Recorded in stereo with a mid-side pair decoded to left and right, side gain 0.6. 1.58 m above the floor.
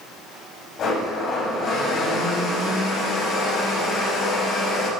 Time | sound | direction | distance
0.8 | a blender | 55° left | 5.5 m